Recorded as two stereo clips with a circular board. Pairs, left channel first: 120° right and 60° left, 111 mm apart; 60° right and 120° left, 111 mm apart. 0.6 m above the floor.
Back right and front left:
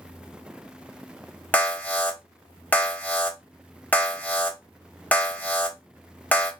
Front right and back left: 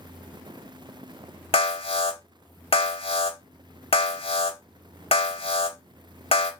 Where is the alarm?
45° right, 0.8 m.